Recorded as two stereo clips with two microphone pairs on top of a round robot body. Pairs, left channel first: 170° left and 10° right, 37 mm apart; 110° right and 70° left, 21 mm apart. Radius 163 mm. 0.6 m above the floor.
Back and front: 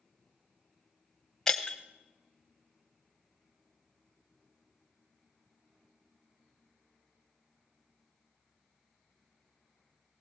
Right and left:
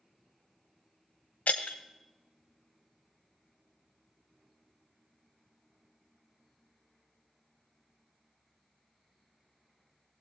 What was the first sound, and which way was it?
Breaking glass, 115° right.